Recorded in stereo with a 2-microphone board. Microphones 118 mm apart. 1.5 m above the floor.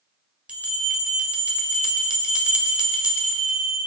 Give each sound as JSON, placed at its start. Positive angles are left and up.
{"t": 0.5, "sound": "a bell", "side_deg": -10, "distance_m": 1.5}